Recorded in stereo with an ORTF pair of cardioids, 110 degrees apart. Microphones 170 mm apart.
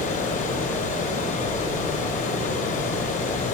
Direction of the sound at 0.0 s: 55° left.